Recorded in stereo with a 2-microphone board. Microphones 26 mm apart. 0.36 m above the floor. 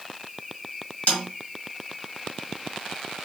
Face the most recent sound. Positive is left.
turn(degrees=55)  # may be behind; listen again after turning